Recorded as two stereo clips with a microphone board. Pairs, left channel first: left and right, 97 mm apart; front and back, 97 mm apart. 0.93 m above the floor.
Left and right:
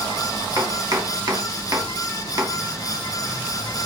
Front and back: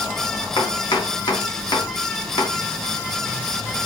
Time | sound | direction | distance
0.6 | chopping | 40° right | 1.1 m